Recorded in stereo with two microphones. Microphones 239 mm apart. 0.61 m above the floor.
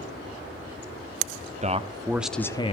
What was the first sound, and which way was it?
A man speaking, 30° right (ahead or behind).